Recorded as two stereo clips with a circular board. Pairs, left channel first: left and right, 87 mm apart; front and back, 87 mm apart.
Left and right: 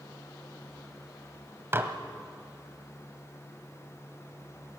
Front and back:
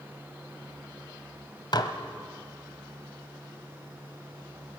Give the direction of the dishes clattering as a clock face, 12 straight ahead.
1 o'clock.